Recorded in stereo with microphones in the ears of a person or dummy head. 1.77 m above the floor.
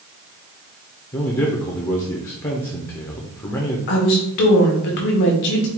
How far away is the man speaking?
About 0.5 m.